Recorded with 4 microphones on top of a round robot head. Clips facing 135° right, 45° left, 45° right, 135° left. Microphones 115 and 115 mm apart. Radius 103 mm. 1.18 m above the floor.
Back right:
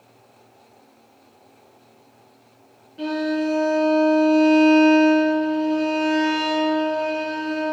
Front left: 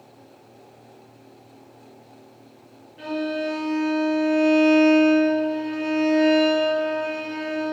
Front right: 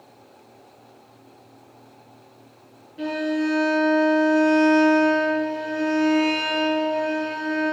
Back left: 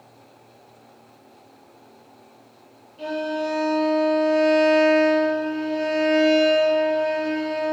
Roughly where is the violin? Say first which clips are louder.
Back right 3 dB, front right 2 dB; right.